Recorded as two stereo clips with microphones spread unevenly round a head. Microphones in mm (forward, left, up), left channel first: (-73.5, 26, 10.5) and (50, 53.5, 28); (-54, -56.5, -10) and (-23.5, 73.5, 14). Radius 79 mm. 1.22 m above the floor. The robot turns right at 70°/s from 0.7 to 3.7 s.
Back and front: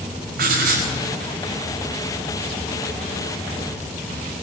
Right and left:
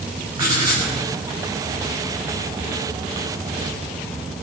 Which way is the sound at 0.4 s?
10° left.